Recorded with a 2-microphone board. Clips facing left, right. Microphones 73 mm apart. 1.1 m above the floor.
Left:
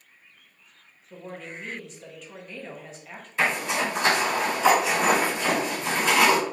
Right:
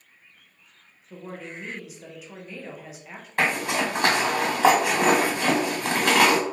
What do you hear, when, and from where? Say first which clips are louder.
1.1 s a woman speaking: right 1 dB; 5° right (ahead or behind), 0.7 m
3.4 s a zipper: right 1 dB; 55° right (ahead or behind), 1.4 m